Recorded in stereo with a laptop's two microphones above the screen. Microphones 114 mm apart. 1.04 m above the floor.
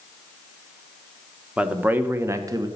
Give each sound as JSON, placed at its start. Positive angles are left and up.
{"t": 1.6, "sound": "a man speaking", "side_deg": -10, "distance_m": 1.1}